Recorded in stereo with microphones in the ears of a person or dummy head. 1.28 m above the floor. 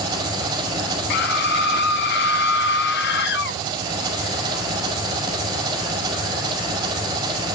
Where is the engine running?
20° right (ahead or behind), 5.5 m.